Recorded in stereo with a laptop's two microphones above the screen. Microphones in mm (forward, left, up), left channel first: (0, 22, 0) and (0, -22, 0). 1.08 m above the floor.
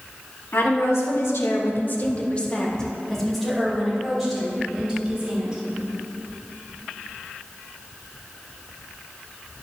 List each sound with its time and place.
0.5 s a woman speaking: 75° left (ahead or behind), 2 m; by 5.6 s 10° right (ahead or behind), 5.5 m